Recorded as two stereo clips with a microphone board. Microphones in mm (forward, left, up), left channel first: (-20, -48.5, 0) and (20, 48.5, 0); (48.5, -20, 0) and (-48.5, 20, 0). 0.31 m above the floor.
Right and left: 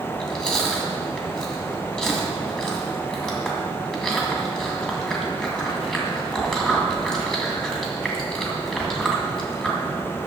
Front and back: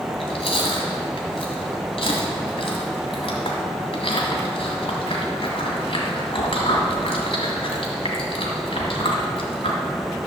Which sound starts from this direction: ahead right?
Chewing, at 0.1 s.